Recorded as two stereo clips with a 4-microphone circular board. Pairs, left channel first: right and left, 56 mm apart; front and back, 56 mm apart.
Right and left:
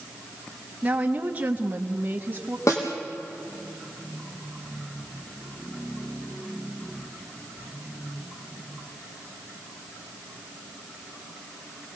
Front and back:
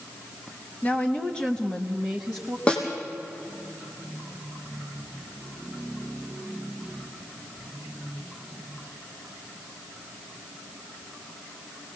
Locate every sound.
0.8 s a woman speaking: 45° left, 1.5 m; by 2.6 s 105° left, 1.5 m
2.7 s a snare drum: 70° right, 4 m